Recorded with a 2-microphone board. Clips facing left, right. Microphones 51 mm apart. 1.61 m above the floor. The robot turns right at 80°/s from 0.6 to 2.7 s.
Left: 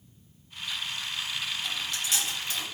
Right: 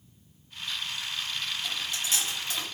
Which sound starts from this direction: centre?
Chewing, at 1.6 s.